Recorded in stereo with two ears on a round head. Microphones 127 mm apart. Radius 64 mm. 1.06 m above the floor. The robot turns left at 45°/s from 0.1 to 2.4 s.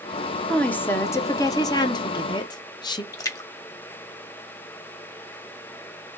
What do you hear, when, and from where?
0.5 s a woman speaking: 5° left (ahead or behind), 0.6 m; by 3.0 s 30° left (ahead or behind), 0.6 m
3.1 s a splash: 25° left (ahead or behind), 0.8 m